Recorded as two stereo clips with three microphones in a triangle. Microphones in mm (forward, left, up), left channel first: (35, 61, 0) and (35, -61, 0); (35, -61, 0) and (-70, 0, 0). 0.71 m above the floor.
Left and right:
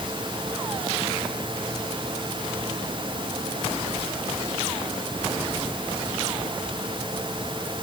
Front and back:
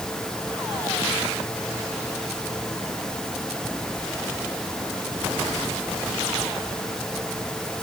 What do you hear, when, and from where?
Only background noise.